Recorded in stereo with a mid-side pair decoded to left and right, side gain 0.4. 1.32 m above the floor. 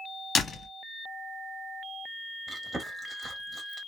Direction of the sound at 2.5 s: 20° right.